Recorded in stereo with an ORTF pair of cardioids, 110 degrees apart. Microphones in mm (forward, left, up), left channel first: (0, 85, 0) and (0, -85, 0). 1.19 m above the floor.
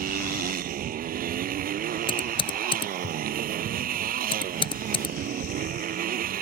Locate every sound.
0.0 s a motorcycle: 60° right
2.1 s typing on a keyboard: 30° left